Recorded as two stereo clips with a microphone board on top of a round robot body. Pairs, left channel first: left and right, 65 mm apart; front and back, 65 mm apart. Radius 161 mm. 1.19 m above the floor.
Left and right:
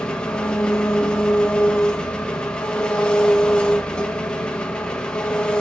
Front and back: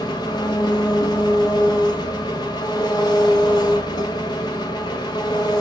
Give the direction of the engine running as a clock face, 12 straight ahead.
12 o'clock.